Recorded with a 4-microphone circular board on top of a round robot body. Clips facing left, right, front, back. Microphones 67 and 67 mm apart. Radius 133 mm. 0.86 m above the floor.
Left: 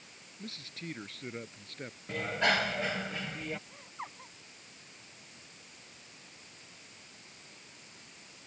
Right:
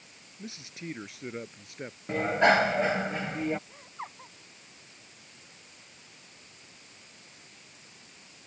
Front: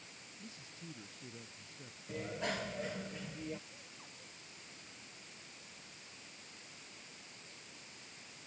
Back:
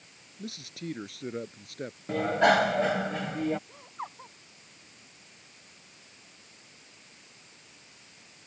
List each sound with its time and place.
0.4 s a man speaking: 165° right; by 2.0 s 170° right
2.1 s a bicycle bell: 155° right
3.7 s laughter: 170° right